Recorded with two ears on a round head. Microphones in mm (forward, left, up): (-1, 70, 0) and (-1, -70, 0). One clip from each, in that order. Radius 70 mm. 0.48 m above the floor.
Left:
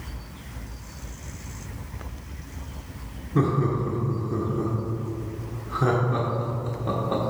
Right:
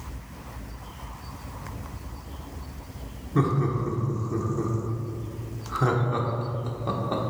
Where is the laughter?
15° right (ahead or behind), 1.1 m.